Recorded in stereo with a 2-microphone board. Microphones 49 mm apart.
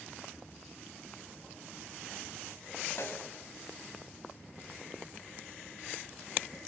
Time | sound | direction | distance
3.0 | a snare drum | 70° left (ahead or behind) | 3.5 m